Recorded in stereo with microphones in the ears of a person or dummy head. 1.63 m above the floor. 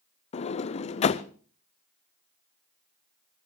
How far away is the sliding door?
About 0.7 m.